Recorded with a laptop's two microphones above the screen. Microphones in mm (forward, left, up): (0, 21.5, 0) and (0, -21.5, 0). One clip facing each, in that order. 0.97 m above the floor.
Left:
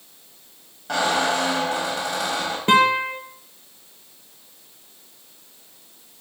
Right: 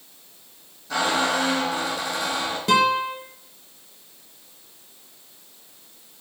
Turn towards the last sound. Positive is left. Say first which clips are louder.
# left 3 dB
turn(degrees=30)  # may be behind; listen again after turning